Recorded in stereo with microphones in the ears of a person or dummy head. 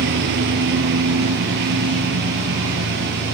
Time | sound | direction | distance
0.0 | a lawn mower | 60° right (ahead or behind) | ?